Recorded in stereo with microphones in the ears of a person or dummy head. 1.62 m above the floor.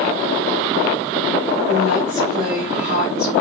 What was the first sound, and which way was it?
A woman speaking, 40° left (ahead or behind).